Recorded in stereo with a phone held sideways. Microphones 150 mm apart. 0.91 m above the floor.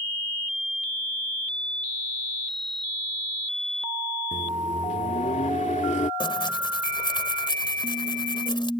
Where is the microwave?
55° left (ahead or behind).